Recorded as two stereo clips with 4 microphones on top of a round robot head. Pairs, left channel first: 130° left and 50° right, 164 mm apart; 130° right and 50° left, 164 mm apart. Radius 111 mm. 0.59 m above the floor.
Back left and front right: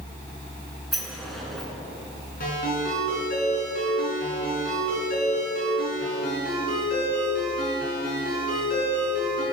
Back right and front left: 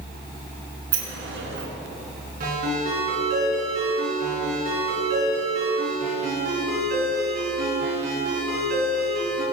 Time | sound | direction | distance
0.9 | a sliding door | 40° left | 2.5 m
2.4 | a ringtone | 90° left | 6 m